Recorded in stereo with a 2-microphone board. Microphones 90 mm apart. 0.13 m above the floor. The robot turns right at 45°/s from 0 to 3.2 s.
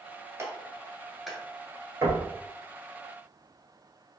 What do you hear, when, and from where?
0.4 s a clap: 30° right (ahead or behind), 1.4 m; by 1.4 s centre (ahead or behind), 1.4 m
2.0 s knocking: 45° right (ahead or behind), 1.4 m; by 2.3 s 35° right (ahead or behind), 1.4 m